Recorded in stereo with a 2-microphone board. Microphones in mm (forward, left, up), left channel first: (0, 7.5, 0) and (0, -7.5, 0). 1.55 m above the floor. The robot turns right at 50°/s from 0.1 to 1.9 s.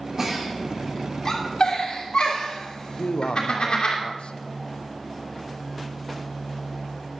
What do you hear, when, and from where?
0.2 s a giggle: 25° right (ahead or behind), 3 m; by 4.0 s 60° left (ahead or behind), 3 m
3.0 s a man speaking: 85° left, 0.7 m